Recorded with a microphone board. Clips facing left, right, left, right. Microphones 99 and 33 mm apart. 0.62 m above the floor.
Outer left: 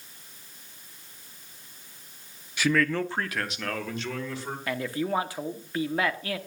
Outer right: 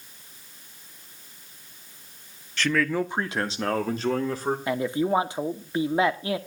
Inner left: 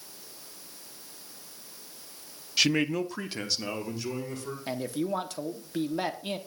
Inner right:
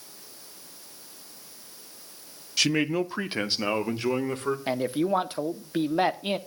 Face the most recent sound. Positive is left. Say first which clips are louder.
# outer right 3 dB, inner right 4 dB
turn(degrees=-25)  # may be behind; listen again after turning